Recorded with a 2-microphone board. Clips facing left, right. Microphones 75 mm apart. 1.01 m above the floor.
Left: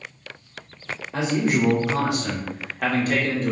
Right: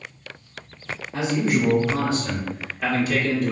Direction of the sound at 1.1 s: 70° left (ahead or behind).